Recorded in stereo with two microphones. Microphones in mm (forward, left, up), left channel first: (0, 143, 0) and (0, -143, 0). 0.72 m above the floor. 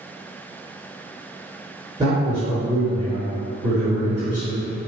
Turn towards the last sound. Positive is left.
turn(degrees=-15)  # may be behind; listen again after turning